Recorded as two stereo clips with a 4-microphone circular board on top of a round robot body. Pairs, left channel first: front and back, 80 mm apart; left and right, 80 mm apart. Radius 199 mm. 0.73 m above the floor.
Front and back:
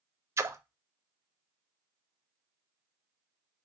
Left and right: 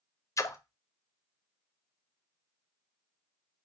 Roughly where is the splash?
Behind left.